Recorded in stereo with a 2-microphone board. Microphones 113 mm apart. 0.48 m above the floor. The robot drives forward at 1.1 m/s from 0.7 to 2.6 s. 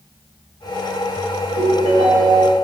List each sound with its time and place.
1.6 s a ringtone: 80° right, 1.5 m; by 2.5 s 50° right (ahead or behind), 1.9 m